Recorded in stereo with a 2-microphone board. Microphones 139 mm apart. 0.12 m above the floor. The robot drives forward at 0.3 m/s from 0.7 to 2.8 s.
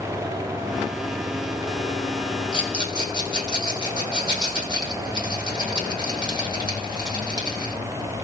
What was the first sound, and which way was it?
A rattle, 35° left (ahead or behind).